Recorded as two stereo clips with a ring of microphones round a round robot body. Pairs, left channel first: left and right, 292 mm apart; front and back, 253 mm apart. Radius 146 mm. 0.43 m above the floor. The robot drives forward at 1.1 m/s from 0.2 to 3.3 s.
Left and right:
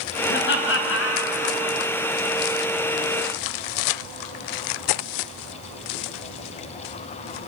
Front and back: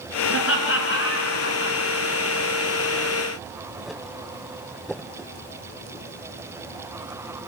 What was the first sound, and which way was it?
Laughter, 35° left.